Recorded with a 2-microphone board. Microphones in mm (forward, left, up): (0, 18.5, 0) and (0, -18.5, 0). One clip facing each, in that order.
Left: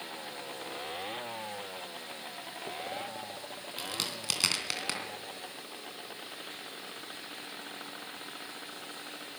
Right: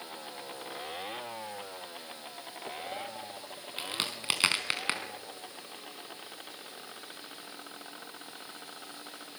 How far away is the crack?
About 3.5 m.